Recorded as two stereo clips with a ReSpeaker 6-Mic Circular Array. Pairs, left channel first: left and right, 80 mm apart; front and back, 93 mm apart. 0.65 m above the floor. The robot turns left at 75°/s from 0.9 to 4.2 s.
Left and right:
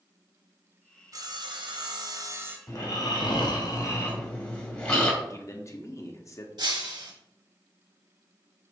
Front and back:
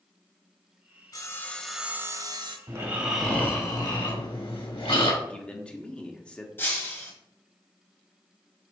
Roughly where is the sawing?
Ahead right.